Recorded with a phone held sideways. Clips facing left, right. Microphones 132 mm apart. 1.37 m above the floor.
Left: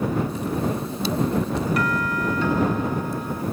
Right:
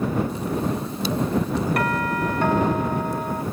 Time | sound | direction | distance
1.8 | a doorbell | 55° right (ahead or behind) | ?